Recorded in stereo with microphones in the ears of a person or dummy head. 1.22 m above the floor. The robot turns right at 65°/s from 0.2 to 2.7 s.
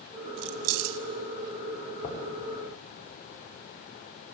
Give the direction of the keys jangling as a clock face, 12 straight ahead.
4 o'clock.